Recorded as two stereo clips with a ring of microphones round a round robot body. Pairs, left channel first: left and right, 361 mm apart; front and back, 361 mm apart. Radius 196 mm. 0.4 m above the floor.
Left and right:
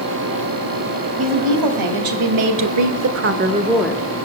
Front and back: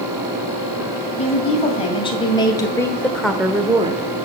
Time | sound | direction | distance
1.2 | a woman speaking | 75° right | 3.5 m